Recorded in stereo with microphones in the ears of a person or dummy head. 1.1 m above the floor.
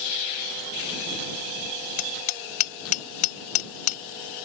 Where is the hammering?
50° left (ahead or behind).